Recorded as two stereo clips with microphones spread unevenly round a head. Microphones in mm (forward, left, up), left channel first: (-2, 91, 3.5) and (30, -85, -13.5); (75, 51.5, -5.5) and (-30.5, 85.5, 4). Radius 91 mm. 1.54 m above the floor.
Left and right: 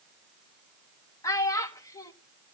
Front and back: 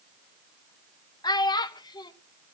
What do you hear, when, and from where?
1.2 s a child speaking: 30° left, 1.1 m